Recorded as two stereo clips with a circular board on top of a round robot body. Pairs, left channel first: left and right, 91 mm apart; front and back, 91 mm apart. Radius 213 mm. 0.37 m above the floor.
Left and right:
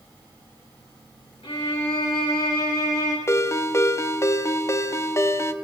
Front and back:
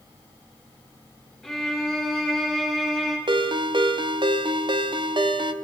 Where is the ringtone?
150° left, 0.8 m.